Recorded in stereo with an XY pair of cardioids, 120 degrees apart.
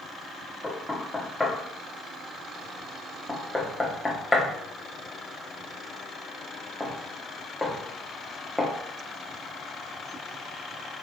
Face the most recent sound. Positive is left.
turn(degrees=15)